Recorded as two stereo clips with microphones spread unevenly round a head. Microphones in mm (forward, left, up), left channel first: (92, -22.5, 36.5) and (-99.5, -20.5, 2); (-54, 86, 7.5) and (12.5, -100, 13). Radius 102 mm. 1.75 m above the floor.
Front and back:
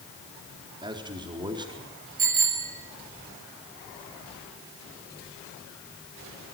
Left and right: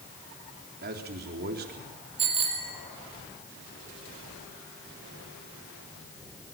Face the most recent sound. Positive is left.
turn(degrees=-135)